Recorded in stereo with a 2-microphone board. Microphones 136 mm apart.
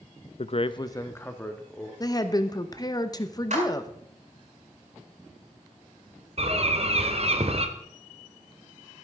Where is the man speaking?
50° left (ahead or behind), 0.5 m; by 1.9 s 10° left (ahead or behind), 1.9 m.